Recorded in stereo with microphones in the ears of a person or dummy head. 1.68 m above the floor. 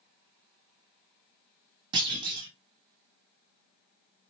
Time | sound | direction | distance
1.9 | a clunk | 30° right (ahead or behind) | 1.2 m